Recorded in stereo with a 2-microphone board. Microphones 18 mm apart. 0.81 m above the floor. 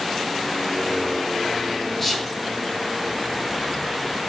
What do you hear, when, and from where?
2.0 s whispering: 10° left (ahead or behind), 0.8 m